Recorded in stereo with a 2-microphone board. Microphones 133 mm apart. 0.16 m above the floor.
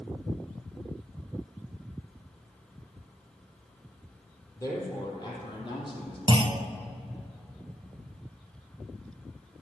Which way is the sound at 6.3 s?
40° right (ahead or behind).